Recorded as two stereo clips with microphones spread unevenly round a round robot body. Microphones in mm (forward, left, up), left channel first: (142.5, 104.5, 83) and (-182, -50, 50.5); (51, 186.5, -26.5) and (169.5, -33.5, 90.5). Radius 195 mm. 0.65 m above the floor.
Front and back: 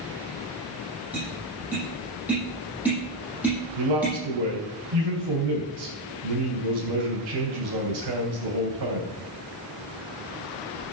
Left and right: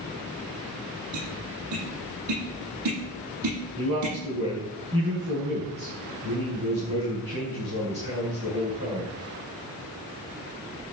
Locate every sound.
1.1 s tapping: 70° right, 9.5 m
3.8 s a man speaking: 125° right, 4 m